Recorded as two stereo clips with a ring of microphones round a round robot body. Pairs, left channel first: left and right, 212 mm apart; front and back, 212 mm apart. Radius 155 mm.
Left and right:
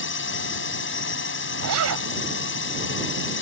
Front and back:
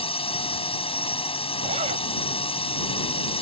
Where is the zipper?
110° right.